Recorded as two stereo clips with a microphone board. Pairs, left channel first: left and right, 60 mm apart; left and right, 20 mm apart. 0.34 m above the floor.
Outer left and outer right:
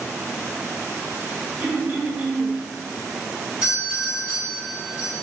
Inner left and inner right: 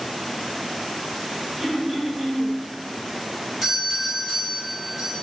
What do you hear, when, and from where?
1.6 s throat clearing: 30° right (ahead or behind), 1.8 m
3.6 s a doorbell: 20° right (ahead or behind), 1.6 m